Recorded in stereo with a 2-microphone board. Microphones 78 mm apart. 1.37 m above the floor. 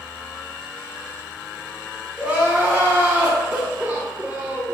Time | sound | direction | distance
2.2 | crying | 20° right (ahead or behind) | 0.8 m